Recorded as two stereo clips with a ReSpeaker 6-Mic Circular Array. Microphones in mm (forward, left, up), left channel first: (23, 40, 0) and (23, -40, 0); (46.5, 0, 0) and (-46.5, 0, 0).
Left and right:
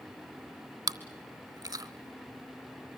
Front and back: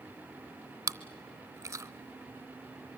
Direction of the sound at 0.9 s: 120° right.